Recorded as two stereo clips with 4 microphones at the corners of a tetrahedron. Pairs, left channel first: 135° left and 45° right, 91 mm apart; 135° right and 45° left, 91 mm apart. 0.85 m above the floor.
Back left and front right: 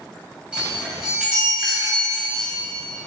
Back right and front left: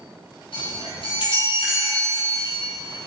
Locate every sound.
0.5 s a chime: 125° right, 4 m